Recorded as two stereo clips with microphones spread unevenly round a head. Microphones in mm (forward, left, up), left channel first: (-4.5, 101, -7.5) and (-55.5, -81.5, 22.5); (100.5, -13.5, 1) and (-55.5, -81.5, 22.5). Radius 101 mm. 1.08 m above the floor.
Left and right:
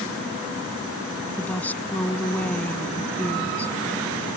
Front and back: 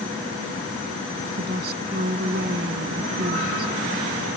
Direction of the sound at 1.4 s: 160° left.